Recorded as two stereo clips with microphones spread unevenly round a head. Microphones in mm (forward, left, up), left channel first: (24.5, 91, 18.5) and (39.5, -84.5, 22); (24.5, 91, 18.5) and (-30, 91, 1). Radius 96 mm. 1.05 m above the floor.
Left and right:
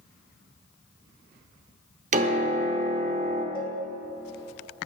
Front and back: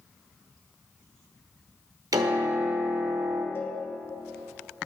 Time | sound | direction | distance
2.1 | a piano | 135° right | 1.0 m
3.5 | a cowbell | 30° left | 2.5 m